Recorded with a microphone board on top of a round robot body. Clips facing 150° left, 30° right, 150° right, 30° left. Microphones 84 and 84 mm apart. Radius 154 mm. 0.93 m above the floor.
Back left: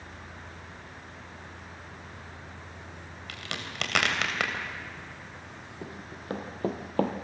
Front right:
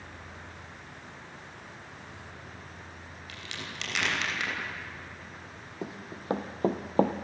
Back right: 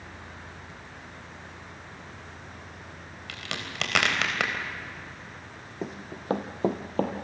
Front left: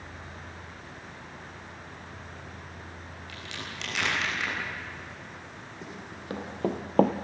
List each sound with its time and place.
3.3 s a crack: 175° right, 3.5 m
5.8 s running footsteps: 100° right, 1.9 m; by 7.1 s 45° left, 1.0 m